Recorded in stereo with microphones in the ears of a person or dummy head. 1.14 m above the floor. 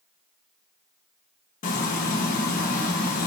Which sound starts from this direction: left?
Frying, at 1.6 s.